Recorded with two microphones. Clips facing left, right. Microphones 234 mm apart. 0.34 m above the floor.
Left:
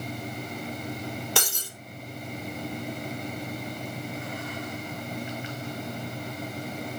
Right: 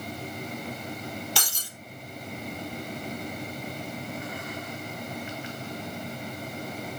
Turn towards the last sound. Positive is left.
turn(degrees=60)  # may be behind; listen again after turning